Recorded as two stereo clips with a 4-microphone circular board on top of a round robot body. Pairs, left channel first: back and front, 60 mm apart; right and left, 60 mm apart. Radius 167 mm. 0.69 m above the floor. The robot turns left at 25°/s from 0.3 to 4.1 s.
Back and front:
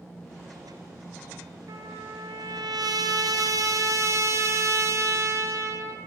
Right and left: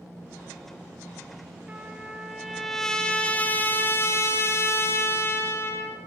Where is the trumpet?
20° left, 3.5 m; by 6.0 s 40° right, 3.5 m.